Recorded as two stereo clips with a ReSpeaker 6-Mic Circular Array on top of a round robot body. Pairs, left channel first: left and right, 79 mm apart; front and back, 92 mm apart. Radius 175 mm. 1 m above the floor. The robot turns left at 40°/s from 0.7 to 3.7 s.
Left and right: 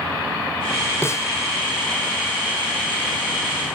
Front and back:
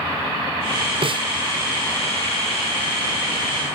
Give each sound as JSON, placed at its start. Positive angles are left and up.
{"t": 1.0, "sound": "a snare drum", "azimuth_deg": 150}